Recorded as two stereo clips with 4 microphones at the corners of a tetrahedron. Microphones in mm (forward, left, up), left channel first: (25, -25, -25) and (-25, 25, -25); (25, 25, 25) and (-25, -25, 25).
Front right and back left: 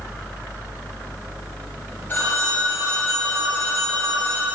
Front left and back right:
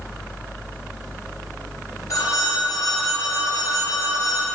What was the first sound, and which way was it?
A phone ringing, 15° left.